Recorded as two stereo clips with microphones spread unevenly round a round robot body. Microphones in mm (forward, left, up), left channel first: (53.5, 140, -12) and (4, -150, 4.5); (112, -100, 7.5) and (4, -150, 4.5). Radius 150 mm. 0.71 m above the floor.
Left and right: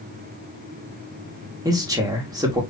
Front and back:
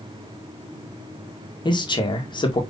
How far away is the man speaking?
About 1.8 m.